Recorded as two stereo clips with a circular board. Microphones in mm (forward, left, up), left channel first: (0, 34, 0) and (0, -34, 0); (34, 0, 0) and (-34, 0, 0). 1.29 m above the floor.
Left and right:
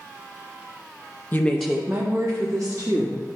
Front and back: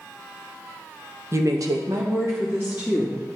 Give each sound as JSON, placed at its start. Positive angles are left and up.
{"t": 1.3, "sound": "a woman speaking", "azimuth_deg": 145, "distance_m": 0.8}